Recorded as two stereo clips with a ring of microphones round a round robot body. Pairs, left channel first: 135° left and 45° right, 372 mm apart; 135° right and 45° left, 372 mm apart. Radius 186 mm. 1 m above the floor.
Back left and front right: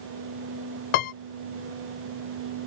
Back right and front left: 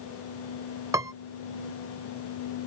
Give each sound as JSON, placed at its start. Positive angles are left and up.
{"t": 0.9, "sound": "a piano", "azimuth_deg": 125}